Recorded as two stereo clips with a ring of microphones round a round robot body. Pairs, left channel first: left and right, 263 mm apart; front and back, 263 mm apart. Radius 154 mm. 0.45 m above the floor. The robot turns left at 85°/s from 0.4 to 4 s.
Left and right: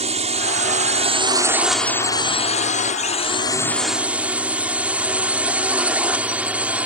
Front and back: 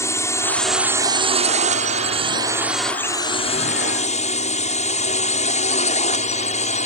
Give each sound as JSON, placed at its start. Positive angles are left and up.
{"t": 0.0, "sound": "a drone", "azimuth_deg": -65}